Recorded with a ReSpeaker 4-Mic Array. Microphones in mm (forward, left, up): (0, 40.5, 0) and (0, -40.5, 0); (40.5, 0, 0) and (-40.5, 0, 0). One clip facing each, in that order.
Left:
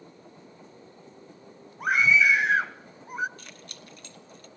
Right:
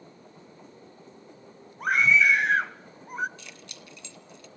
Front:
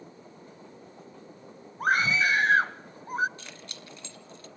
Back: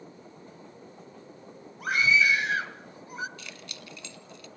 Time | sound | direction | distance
1.8 | a scream | 5° left | 1.3 m
3.4 | keys jangling | 50° left | 1.8 m